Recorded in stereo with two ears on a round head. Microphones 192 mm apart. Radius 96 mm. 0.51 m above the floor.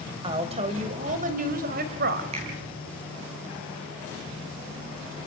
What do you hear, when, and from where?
0.2 s a woman speaking: 25° right (ahead or behind), 3 m; by 2.2 s 50° right (ahead or behind), 3 m
2.3 s a finger snap: 30° right (ahead or behind), 8 m